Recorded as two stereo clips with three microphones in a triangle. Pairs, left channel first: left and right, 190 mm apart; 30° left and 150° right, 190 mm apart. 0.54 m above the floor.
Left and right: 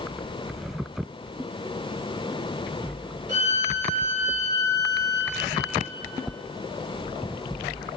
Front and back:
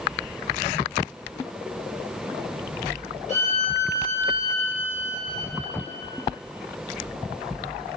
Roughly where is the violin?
Left.